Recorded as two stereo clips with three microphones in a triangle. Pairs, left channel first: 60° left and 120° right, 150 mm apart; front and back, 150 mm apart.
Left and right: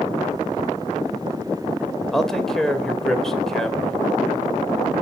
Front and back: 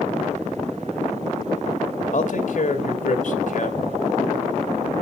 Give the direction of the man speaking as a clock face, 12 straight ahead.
1 o'clock.